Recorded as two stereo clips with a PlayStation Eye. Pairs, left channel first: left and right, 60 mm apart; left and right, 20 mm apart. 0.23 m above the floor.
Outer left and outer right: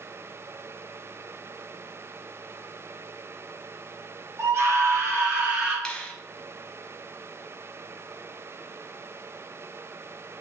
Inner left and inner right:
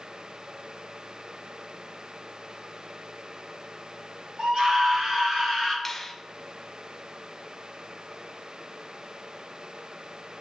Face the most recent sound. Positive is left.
turn(degrees=15)  # may be behind; listen again after turning